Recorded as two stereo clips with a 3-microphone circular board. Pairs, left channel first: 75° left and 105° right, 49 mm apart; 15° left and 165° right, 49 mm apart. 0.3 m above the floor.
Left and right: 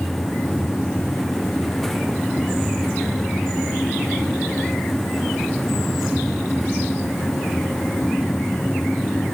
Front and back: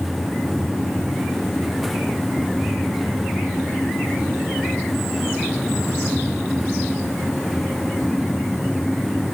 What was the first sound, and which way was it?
Only background noise.